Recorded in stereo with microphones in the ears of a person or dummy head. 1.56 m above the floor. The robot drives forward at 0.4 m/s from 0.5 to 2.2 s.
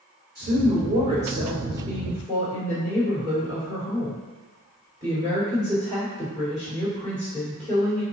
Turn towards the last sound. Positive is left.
turn(degrees=-25)  # may be behind; listen again after turning